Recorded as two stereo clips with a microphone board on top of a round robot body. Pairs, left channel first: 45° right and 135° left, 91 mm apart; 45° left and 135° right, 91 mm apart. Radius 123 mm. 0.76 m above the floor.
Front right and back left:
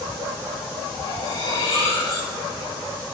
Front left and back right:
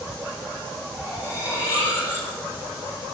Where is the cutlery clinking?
10° right, 5 m.